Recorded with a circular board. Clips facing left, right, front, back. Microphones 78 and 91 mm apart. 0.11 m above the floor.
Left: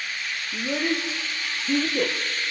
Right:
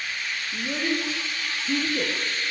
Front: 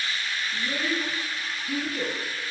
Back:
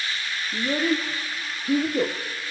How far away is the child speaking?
About 3.5 m.